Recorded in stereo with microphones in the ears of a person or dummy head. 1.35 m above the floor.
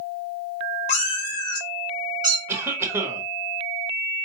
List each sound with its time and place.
0.9 s a cat meowing: 35° left (ahead or behind), 0.9 m; by 2.4 s 25° right (ahead or behind), 1.2 m
2.5 s a cough: 10° right (ahead or behind), 1.1 m